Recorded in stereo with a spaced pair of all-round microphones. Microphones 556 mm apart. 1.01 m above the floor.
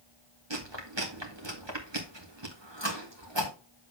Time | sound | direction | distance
0.5 | chewing | 50° right (ahead or behind) | 1.9 m